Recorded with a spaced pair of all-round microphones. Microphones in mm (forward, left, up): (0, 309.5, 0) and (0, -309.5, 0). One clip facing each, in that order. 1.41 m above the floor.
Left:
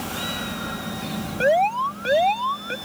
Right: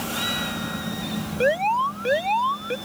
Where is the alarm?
15° left (ahead or behind).